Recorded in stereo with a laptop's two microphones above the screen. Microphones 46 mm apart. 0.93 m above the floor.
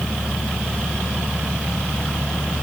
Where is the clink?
No clink in this recording.